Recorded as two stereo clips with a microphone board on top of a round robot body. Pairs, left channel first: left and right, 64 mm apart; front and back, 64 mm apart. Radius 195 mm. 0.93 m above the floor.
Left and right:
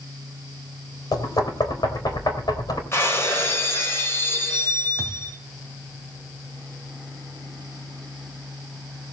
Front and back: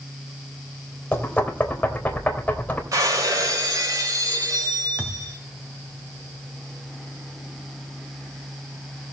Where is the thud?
115° left, 3 m.